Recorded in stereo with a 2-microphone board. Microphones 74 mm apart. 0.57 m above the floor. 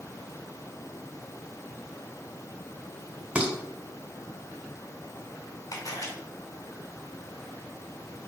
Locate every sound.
3.4 s dishes clattering: 15° right (ahead or behind), 1.5 m
5.7 s a camera shutter: 55° left (ahead or behind), 2 m